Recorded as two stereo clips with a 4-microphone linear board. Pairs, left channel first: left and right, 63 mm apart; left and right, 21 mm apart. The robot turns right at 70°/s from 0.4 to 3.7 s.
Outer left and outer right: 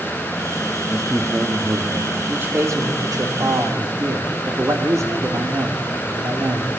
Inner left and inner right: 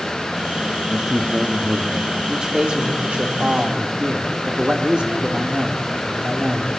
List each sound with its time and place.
0.9 s a man speaking: 165° left, 1.4 m; by 2.2 s 105° right, 1.4 m
2.3 s a man speaking: 155° right, 3 m; by 6.7 s 55° right, 3 m